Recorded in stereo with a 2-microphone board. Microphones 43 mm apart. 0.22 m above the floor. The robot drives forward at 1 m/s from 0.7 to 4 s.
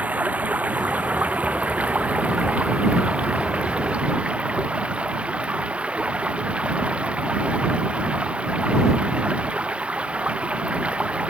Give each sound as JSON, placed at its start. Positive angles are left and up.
{"t": 0.0, "sound": "running water", "side_deg": -35}